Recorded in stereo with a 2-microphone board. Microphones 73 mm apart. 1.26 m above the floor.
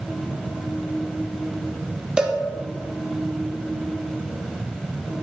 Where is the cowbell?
10° right (ahead or behind), 0.6 m.